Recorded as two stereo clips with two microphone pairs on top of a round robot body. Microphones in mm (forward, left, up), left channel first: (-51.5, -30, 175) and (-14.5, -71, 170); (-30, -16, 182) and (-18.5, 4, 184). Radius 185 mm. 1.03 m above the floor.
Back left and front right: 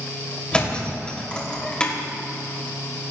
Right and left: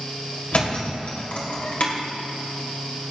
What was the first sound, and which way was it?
A thud, 155° right.